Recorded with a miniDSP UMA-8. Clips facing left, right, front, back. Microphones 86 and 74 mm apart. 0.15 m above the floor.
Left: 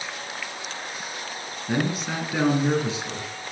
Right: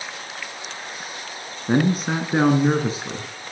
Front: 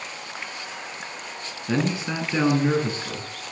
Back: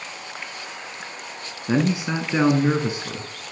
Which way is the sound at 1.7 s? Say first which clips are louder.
Right 6 dB, back 3 dB; 115° right.